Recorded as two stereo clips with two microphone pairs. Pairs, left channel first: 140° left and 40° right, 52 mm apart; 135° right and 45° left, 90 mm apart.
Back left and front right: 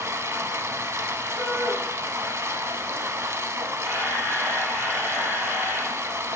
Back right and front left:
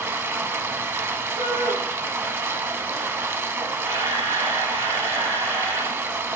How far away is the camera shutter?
About 2.5 m.